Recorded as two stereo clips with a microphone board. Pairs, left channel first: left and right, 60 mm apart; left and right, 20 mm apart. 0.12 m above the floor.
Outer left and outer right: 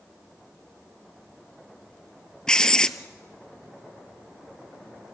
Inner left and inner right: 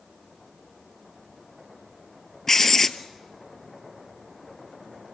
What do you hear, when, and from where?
2.5 s writing: 15° left (ahead or behind), 0.8 m